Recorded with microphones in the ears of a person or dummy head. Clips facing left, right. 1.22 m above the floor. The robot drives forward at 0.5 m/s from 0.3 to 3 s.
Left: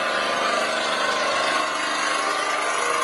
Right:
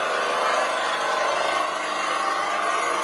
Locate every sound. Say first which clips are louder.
0.0 s an engine running: even; 50° left (ahead or behind), 1.6 m; by 3.0 s 65° left (ahead or behind), 1.3 m